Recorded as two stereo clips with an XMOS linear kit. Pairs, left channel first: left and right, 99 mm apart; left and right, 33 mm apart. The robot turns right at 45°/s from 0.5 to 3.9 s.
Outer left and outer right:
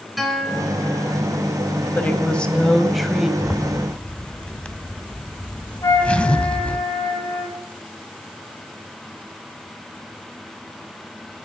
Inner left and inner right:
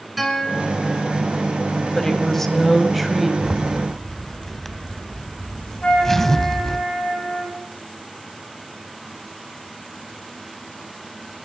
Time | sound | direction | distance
0.2 | a guitar | straight ahead | 2.5 m
1.9 | a woman speaking | 15° left (ahead or behind) | 1.5 m
3.4 | a zipper | 5° right (ahead or behind) | 0.9 m
5.8 | a flute | 40° left (ahead or behind) | 6 m